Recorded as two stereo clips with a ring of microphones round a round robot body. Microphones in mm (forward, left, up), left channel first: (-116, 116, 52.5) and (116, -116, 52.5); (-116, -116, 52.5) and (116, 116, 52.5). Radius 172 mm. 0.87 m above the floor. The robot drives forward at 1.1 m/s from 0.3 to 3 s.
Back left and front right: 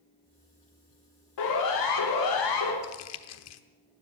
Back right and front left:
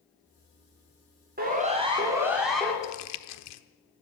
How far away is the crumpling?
About 0.8 m.